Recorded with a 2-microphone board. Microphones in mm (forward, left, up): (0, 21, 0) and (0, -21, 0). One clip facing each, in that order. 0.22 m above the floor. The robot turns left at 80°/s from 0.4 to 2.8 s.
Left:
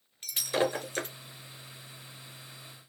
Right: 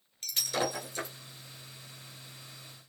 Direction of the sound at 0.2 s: 15° left (ahead or behind).